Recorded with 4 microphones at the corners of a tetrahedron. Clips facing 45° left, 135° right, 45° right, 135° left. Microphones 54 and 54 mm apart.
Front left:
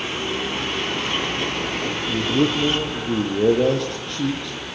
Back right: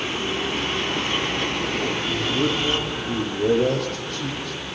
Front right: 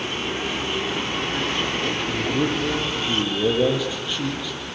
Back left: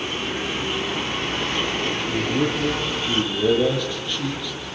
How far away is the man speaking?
About 7.5 m.